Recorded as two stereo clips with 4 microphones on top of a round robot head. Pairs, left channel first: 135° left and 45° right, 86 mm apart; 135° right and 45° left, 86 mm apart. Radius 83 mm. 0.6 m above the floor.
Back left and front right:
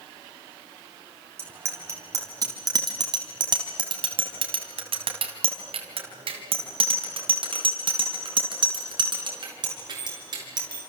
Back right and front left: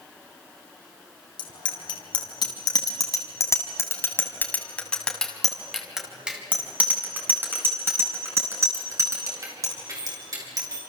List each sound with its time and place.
1.4 s a bicycle bell: 110° right, 4.5 m; by 10.8 s 5° right, 7.5 m